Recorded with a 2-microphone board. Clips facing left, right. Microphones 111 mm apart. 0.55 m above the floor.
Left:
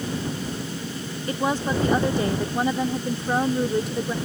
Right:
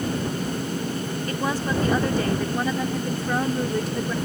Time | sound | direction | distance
1.3 | a woman speaking | 20° left (ahead or behind) | ?